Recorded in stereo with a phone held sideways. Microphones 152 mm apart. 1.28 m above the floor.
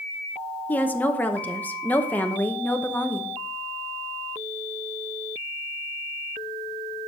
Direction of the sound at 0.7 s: 10° left (ahead or behind).